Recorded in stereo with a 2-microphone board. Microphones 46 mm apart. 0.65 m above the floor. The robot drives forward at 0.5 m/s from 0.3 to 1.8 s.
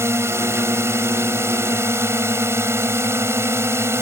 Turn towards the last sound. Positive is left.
turn(degrees=-70)  # may be behind; listen again after turning